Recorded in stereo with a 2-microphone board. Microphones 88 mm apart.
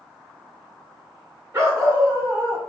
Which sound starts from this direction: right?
A dog barking, at 1.5 s.